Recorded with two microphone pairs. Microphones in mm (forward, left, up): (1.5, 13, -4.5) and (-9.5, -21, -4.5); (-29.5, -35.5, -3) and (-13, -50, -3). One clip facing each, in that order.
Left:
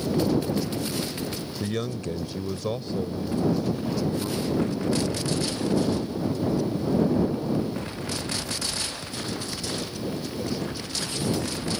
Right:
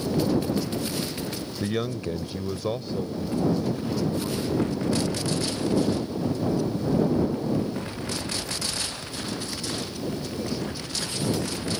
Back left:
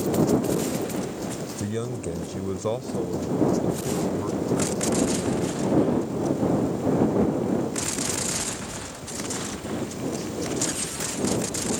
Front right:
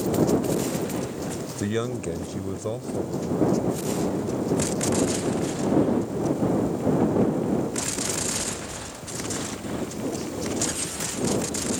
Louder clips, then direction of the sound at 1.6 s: Right 2 dB, front right 4 dB; 45° right.